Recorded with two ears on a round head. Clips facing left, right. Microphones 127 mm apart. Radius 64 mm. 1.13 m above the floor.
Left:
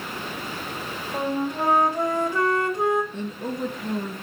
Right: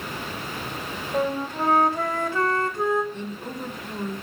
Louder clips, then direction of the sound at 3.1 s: Left 3 dB; 65° left (ahead or behind).